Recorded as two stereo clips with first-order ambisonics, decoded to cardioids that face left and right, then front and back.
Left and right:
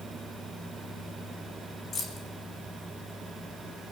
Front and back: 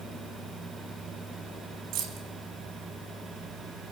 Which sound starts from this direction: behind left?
Keys jangling, at 1.9 s.